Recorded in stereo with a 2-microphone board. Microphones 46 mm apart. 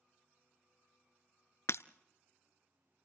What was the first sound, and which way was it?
Breaking glass, 80° left.